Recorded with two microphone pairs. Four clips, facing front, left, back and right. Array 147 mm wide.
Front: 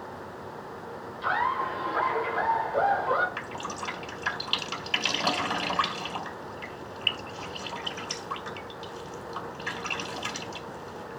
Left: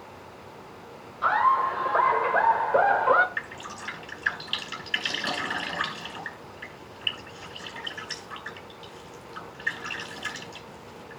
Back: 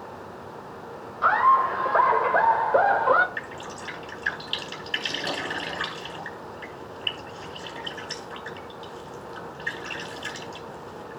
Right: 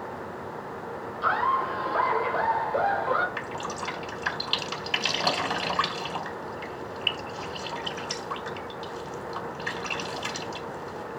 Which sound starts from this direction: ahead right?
Dripping, at 3.4 s.